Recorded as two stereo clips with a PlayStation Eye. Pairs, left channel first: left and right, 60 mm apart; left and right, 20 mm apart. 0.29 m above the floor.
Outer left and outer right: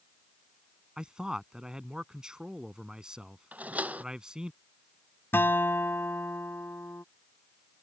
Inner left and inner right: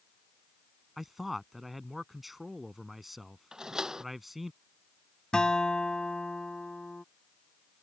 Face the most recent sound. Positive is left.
turn(degrees=40)  # may be behind; listen again after turning